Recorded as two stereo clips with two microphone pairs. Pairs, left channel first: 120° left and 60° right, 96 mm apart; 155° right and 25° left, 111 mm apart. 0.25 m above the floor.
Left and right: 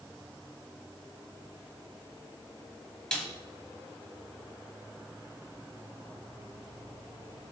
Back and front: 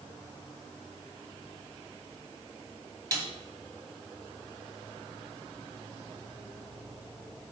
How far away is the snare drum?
About 1.3 m.